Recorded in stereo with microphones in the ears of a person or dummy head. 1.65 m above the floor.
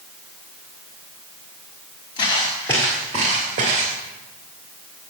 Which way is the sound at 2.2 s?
25° left (ahead or behind).